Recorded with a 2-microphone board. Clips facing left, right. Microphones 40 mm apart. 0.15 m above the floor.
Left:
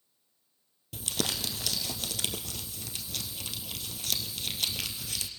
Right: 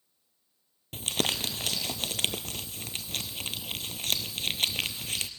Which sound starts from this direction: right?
Crumpling, at 0.9 s.